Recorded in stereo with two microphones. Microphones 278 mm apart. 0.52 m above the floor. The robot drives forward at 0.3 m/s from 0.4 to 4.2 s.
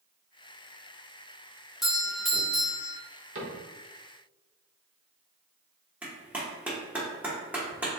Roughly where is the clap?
Centre.